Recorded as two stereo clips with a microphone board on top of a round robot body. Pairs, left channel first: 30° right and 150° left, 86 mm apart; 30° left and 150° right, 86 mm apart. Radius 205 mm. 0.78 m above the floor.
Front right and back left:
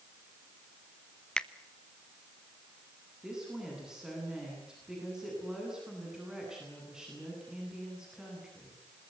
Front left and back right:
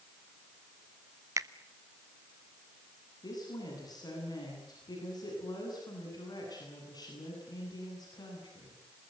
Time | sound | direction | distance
1.4 | a finger snap | 110° right | 1.3 m
3.2 | a woman speaking | 65° left | 10 m